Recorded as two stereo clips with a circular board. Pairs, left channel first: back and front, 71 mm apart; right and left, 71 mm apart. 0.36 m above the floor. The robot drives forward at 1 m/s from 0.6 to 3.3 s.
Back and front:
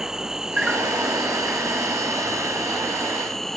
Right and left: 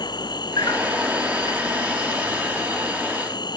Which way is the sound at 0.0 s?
85° right.